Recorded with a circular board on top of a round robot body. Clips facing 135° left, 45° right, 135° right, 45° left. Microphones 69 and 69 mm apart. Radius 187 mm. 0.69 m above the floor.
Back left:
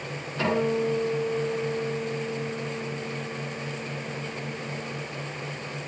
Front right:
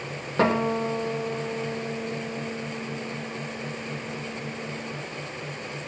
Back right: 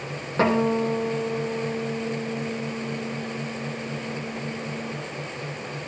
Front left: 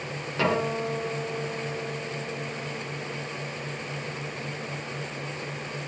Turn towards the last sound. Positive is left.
turn(degrees=-80)